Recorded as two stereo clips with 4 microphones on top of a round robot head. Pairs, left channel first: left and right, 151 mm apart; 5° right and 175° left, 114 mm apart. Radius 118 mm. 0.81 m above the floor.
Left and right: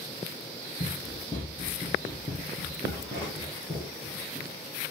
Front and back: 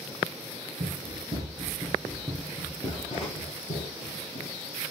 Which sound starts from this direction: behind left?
Running footsteps, at 0.8 s.